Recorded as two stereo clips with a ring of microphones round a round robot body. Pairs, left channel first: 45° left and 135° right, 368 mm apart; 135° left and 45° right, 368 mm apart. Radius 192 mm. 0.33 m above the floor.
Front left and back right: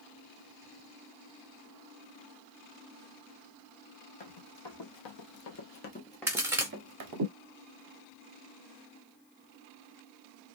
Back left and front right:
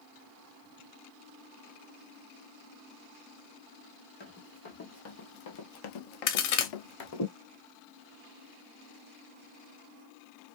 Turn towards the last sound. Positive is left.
turn(degrees=140)